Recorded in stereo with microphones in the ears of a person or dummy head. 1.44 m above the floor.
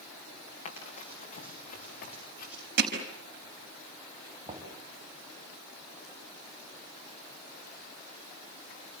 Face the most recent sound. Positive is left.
turn(degrees=-30)  # may be behind; listen again after turning